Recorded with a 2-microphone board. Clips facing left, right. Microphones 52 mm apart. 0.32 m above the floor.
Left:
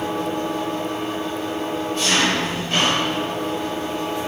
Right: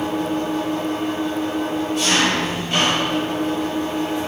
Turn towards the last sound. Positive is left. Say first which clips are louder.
# right 2 dB
turn(degrees=-5)  # may be behind; listen again after turning